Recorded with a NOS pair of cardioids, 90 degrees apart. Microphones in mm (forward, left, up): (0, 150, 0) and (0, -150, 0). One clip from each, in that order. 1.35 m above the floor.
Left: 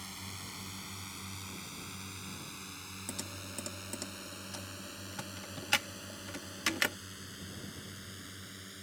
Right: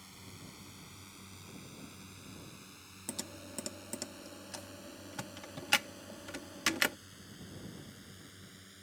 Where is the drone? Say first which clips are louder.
Left 8 dB; 60° left; by 8.8 s 50° left.